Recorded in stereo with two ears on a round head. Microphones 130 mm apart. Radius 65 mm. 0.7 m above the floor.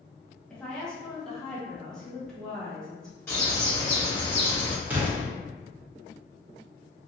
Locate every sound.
0.5 s a woman speaking: 5° left (ahead or behind), 1.1 m
3.3 s a bird: 15° left (ahead or behind), 1.4 m
4.9 s an explosion: 10° right (ahead or behind), 1.0 m